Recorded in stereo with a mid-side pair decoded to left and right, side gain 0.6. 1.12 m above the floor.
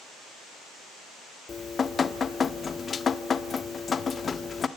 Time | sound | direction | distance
1.5 | dripping | 30° left | 1.4 m